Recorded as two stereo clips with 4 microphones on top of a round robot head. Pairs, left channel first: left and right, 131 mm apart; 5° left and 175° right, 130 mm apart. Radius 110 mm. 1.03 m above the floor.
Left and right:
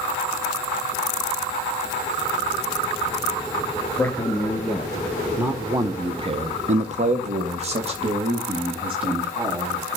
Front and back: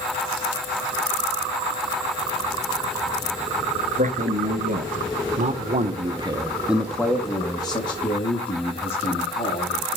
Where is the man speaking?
170° left, 1.8 m; by 10.0 s 40° right, 2.5 m.